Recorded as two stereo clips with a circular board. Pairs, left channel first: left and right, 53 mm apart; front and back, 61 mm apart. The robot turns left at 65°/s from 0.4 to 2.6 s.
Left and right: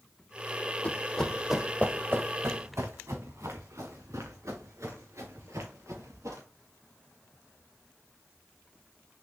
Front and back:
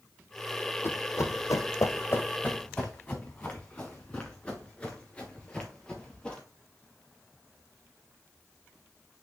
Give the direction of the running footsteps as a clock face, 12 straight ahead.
11 o'clock.